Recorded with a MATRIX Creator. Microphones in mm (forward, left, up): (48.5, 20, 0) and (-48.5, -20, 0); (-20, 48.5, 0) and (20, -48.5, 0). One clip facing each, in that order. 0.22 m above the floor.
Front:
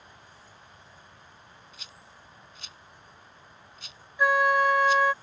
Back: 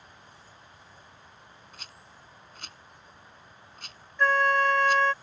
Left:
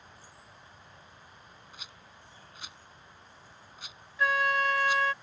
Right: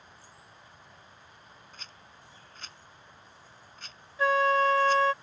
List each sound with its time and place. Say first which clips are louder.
1.7 s a rattle: back 1 dB, even; 170° right
4.2 s a flute: front 1 dB, right 4 dB; 50° right